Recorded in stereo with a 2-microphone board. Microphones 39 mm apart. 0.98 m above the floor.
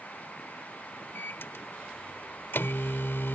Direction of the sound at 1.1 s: 65° left (ahead or behind).